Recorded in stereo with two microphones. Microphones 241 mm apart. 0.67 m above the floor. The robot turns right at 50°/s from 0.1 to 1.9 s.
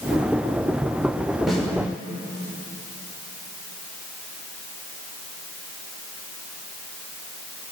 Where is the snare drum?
Centre (ahead or behind), 2.5 m; by 1.7 s 10° left (ahead or behind), 2.5 m.